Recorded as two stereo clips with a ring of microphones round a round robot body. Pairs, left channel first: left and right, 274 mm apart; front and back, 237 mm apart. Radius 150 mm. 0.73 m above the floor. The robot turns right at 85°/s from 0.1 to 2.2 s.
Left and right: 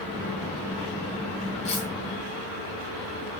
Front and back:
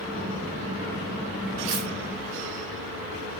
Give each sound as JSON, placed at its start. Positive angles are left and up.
{"t": 1.6, "sound": "cutlery clinking", "azimuth_deg": 155, "distance_m": 2.5}